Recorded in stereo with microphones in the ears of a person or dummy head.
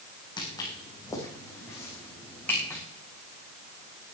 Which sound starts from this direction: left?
Footsteps, at 0.4 s.